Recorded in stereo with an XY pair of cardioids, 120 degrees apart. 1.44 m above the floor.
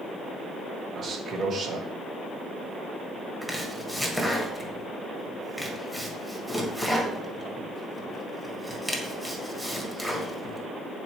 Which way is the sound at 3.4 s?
10° right.